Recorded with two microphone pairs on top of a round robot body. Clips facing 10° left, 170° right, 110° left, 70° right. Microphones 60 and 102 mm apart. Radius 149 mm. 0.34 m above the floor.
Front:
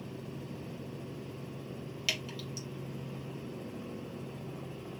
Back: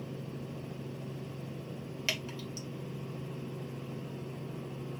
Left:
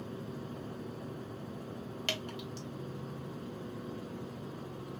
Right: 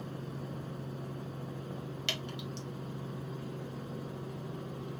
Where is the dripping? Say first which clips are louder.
Even, left 2 dB; 140° left, 2 m.